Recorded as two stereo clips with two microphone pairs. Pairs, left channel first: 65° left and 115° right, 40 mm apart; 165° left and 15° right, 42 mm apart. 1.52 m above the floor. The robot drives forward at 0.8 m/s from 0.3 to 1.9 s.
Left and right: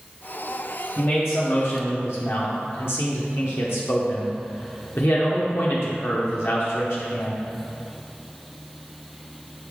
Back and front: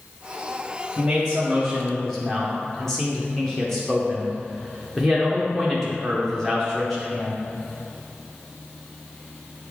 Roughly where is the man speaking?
Ahead left.